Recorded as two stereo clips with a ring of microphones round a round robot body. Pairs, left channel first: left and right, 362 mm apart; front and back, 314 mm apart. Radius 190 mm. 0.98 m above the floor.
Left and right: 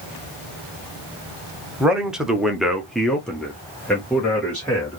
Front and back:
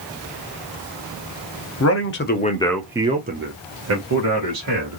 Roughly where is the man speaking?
Ahead.